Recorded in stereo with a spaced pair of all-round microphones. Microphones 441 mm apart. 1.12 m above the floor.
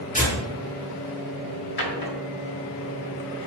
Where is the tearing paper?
15° left (ahead or behind), 3.5 m.